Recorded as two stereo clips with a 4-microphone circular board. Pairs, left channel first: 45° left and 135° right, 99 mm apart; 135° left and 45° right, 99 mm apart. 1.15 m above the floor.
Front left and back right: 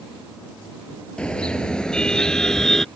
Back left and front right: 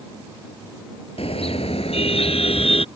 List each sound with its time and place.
1.2 s a car horn: 125° left; by 2.9 s 130° left